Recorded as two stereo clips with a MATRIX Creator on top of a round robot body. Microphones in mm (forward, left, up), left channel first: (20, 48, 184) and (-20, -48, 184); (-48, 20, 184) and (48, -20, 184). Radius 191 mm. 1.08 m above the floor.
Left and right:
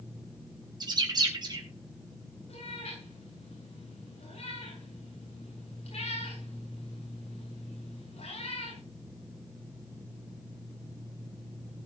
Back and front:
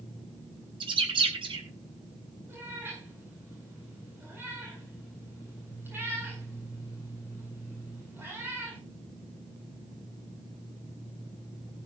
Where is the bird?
60° right, 2 m.